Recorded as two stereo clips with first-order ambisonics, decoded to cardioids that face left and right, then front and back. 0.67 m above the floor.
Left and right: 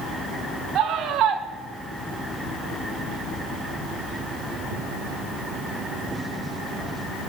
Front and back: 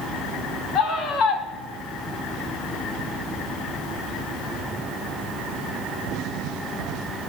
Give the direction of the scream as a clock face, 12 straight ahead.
1 o'clock.